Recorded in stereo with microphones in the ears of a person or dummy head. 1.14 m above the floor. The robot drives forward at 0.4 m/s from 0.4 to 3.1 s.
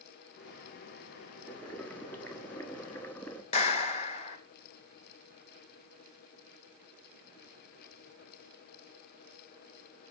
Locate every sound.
1.4 s boiling: 10° left (ahead or behind), 1.8 m
3.5 s a clap: 35° left (ahead or behind), 1.3 m